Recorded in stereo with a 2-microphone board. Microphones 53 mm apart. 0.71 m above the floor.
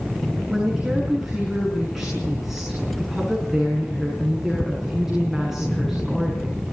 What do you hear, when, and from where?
0.5 s a woman speaking: 10° right (ahead or behind), 6.5 m